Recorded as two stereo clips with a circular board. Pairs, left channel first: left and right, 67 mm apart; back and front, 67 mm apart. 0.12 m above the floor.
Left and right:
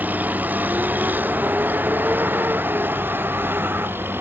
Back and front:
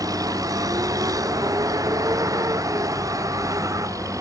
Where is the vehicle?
25° right; by 4.2 s 35° right.